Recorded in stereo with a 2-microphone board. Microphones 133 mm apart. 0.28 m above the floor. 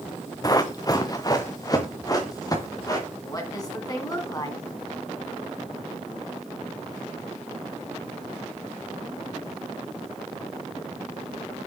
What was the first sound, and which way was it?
Running footsteps, 30° left (ahead or behind).